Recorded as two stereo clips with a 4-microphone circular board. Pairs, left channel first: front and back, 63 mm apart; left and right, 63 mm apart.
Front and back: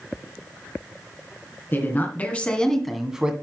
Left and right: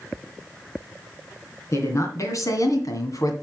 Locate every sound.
1.7 s a woman speaking: 50° left, 3 m; by 3.3 s 110° left, 1.9 m